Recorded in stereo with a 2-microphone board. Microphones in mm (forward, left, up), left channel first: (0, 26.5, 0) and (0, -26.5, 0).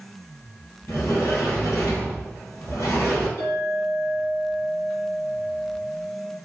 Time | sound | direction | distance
0.9 | a sliding door | 85° left | 1.9 m
3.4 | a clink | 50° left (ahead or behind) | 1.5 m